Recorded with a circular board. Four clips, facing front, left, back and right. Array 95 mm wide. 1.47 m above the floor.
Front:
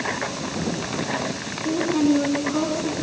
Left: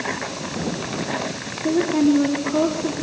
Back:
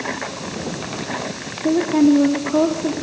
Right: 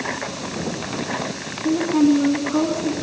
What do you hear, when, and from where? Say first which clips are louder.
1.6 s a woman speaking: right 1 dB, back 5 dB; 170° left, 4 m